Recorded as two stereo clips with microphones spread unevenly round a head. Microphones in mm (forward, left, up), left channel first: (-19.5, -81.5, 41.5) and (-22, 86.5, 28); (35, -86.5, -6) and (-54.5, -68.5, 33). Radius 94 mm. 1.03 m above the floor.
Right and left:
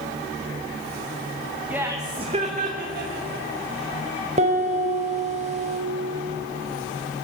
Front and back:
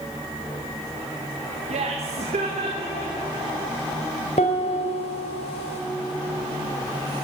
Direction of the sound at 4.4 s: 35° left.